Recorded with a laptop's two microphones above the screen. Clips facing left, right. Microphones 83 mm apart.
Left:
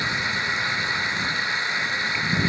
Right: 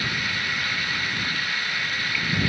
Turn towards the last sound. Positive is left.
turn(degrees=20)  # may be behind; listen again after turning